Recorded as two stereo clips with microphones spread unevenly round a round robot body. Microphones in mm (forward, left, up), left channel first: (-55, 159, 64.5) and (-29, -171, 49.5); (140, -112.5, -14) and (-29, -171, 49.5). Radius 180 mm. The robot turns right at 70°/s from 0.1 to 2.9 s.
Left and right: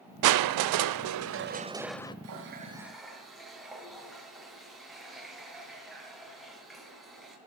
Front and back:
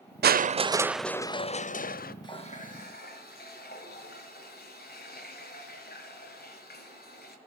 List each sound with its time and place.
0.2 s crushing: 115° right, 0.6 m; by 2.1 s 20° left, 0.6 m
2.2 s a running tap: 45° right, 2.5 m; by 7.4 s 5° left, 2.5 m